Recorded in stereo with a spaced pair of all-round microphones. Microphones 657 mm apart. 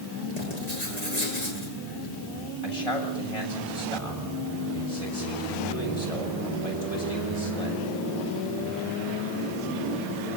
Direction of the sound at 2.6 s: 60° left (ahead or behind).